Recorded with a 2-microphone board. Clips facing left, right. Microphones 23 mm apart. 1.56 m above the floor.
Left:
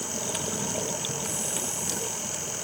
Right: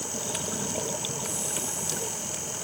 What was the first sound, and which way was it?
Only background noise.